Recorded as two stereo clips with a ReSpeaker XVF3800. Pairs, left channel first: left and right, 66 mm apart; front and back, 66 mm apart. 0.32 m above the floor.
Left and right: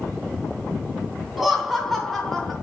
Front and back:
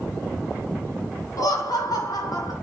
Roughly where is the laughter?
Ahead.